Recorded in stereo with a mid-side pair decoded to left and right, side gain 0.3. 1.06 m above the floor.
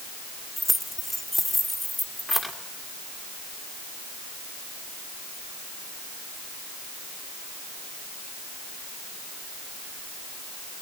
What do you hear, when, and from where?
0.6 s keys jangling: 10° left, 2.5 m